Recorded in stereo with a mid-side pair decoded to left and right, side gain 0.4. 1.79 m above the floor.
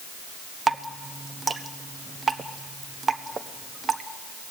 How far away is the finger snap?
I don't hear a finger snap.